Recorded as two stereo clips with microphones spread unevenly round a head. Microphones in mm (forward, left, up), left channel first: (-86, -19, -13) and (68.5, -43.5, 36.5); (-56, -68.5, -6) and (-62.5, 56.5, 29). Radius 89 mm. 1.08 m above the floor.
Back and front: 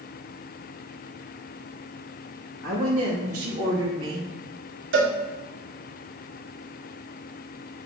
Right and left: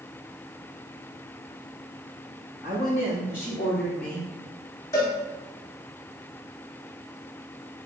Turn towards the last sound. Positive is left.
turn(degrees=-15)